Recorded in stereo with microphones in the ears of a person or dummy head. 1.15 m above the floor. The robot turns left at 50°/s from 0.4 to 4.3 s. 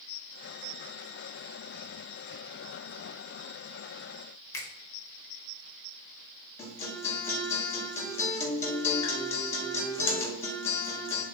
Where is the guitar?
20° left (ahead or behind), 1.3 m.